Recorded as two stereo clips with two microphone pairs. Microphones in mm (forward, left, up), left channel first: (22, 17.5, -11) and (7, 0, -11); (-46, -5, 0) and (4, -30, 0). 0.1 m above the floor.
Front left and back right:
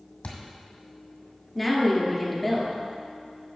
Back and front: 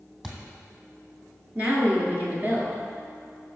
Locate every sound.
0.2 s a thud: 55° left, 1.6 m
1.6 s a woman speaking: 30° right, 1.7 m